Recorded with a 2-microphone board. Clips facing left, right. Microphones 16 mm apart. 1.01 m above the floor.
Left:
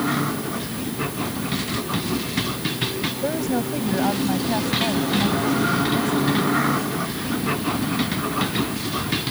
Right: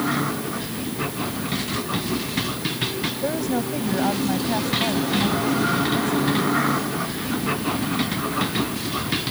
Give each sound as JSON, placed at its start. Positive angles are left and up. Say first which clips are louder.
{"t": 3.2, "sound": "a woman speaking", "louder": "left 1 dB", "side_deg": -5}